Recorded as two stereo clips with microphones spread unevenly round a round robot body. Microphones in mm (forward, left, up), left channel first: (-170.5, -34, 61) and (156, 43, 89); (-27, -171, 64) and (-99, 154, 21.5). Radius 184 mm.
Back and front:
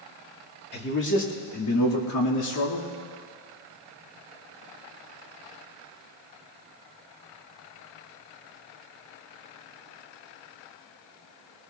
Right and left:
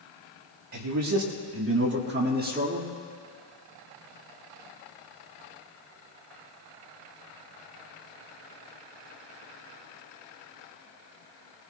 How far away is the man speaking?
About 2.5 m.